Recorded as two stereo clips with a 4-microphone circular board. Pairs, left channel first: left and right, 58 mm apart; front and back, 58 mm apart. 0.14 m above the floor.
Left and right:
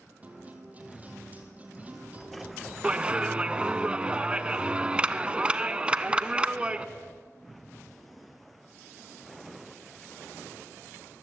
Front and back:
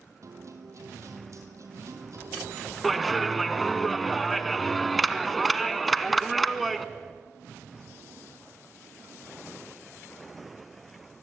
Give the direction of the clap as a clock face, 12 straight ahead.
3 o'clock.